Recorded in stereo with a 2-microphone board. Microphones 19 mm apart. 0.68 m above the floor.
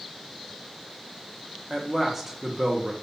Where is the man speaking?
15° right (ahead or behind), 0.7 m.